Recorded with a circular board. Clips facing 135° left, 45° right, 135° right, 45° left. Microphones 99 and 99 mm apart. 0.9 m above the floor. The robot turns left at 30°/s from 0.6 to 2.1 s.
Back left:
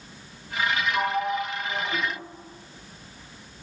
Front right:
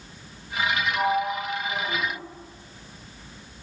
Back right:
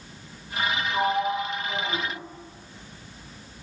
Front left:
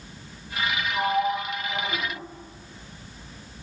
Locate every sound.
0.9 s a sliding door: 135° right, 1.2 m; by 2.0 s 170° right, 1.2 m